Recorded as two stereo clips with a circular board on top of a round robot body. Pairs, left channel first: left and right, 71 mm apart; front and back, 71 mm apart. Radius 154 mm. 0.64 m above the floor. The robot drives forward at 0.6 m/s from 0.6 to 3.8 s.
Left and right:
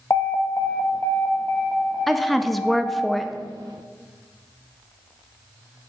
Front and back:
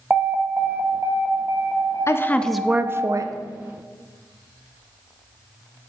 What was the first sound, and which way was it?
An alarm, 120° left.